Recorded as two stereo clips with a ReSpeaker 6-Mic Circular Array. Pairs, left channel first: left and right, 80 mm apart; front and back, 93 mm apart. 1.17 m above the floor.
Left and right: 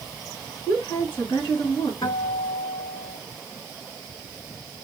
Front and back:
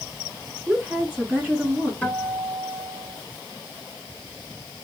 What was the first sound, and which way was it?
A woman speaking, 105° left.